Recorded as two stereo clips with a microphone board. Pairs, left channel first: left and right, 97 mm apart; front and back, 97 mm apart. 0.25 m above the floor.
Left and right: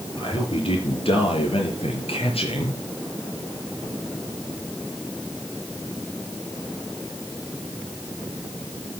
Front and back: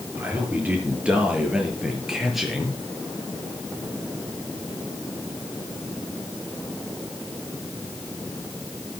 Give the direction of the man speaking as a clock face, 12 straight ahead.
8 o'clock.